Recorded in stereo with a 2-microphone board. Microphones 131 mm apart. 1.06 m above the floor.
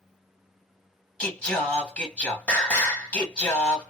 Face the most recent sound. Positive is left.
turn(degrees=10)  # may be behind; listen again after turning